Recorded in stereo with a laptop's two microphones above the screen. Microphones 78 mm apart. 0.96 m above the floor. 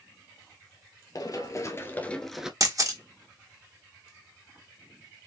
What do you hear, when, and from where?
1.1 s running footsteps: 55° left (ahead or behind), 1.5 m; by 2.5 s 10° right (ahead or behind), 0.9 m
2.6 s a camera shutter: 45° right (ahead or behind), 1.2 m